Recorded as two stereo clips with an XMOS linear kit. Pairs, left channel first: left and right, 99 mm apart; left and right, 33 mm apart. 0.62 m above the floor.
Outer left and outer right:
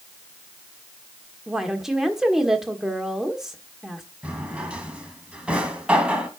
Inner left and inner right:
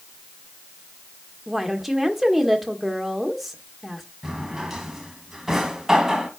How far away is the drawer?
About 1.6 m.